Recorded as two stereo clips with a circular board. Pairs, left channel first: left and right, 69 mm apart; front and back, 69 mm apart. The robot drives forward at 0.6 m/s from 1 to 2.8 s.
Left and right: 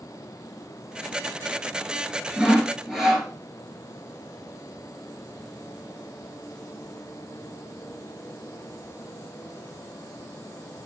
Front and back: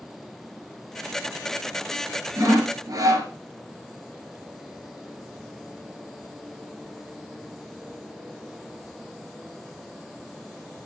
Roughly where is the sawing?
Behind.